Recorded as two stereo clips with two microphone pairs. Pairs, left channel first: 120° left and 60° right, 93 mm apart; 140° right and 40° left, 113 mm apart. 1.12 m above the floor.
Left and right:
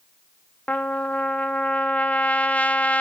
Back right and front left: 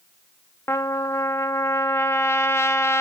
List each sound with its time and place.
0.7 s a trumpet: straight behind, 0.8 m